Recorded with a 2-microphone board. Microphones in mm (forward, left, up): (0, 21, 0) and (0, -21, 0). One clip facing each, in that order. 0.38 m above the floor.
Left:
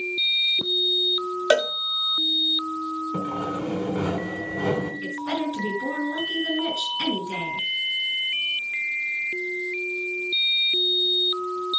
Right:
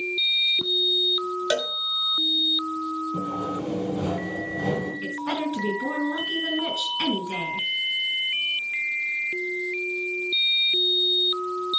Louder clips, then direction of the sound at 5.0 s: Even; 30° right (ahead or behind).